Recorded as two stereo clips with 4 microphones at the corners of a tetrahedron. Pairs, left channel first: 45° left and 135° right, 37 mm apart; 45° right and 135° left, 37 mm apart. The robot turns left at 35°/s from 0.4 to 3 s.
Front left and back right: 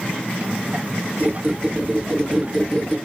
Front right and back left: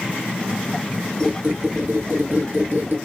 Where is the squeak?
170° right, 0.9 m; by 3.0 s 130° left, 0.9 m.